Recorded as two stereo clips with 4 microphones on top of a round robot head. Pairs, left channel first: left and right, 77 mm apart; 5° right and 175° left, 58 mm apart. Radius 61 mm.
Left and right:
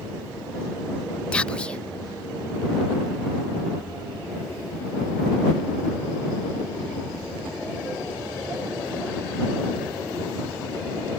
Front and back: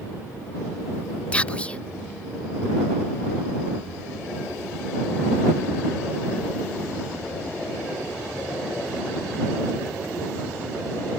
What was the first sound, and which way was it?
Whispering, 35° left.